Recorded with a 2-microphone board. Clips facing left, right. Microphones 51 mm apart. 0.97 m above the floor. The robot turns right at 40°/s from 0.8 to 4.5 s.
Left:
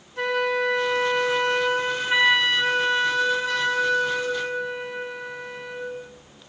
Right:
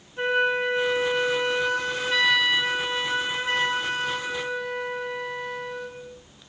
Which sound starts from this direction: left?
A flute, at 0.2 s.